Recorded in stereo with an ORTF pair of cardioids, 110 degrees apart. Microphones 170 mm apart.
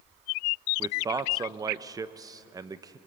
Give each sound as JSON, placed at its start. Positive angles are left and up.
{"t": 0.8, "sound": "a man speaking", "azimuth_deg": -20, "distance_m": 0.7}